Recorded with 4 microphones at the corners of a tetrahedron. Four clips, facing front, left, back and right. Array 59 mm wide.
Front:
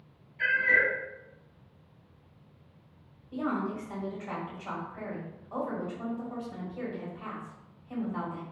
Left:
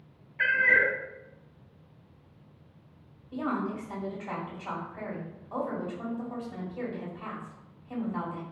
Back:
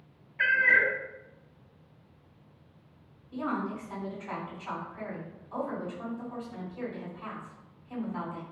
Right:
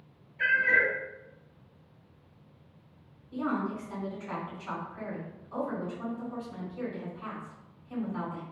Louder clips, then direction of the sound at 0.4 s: Left 1 dB, back 2 dB; 130° left.